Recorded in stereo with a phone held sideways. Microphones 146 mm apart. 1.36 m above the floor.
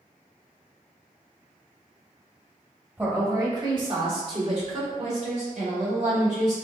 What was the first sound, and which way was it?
A woman speaking, 15° right (ahead or behind).